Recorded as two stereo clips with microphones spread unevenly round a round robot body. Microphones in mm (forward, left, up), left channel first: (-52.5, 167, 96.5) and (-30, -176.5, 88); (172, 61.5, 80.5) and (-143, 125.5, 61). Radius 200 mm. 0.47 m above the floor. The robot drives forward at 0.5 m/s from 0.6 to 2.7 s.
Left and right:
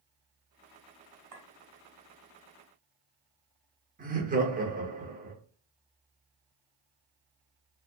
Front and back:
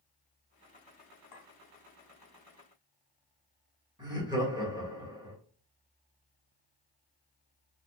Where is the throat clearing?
I don't hear throat clearing.